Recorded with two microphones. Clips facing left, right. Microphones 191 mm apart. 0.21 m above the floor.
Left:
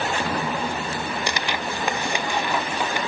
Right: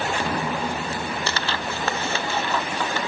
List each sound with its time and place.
1.3 s tearing paper: 15° left (ahead or behind)